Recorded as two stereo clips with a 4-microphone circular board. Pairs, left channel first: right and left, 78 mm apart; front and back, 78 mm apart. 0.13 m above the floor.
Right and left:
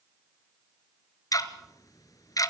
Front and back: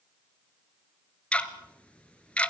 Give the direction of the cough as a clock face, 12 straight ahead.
No cough in this recording.